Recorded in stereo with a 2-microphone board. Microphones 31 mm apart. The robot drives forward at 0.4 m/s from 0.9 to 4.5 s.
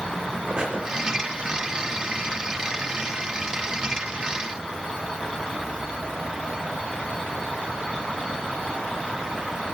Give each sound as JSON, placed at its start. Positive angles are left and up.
{"t": 0.5, "sound": "breathing", "side_deg": -25, "distance_m": 3.5}